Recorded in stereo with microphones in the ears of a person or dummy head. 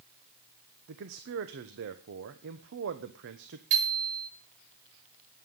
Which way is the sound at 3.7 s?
50° right (ahead or behind).